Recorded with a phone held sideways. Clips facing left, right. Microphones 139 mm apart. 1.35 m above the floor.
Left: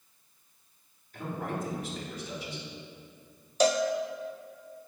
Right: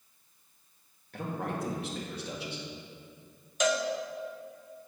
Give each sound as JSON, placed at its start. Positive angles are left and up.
{"t": 1.1, "sound": "a man speaking", "side_deg": -75, "distance_m": 2.5}
{"t": 3.6, "sound": "a cowbell", "side_deg": 35, "distance_m": 0.6}